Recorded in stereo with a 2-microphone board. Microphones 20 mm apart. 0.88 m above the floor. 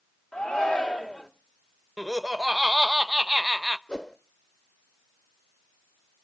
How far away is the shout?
About 2.5 m.